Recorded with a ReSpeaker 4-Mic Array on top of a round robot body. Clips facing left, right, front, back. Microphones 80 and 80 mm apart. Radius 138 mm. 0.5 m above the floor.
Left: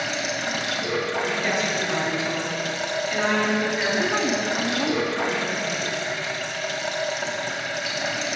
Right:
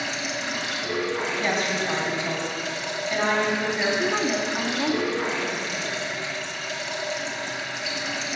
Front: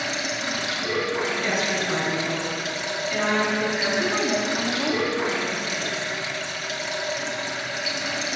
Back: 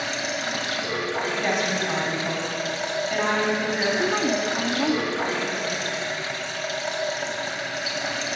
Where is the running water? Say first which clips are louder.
Left 3 dB, even; 130° left, 1.5 m.